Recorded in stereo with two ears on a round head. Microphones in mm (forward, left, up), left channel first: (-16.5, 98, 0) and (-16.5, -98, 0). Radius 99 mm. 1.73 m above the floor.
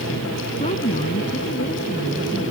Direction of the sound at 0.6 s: 30° left (ahead or behind).